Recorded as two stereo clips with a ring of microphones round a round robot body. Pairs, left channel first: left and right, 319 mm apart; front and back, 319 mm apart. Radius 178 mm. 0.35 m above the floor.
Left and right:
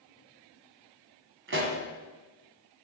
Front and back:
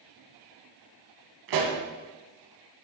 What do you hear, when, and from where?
1.5 s a pop: 145° right, 1.3 m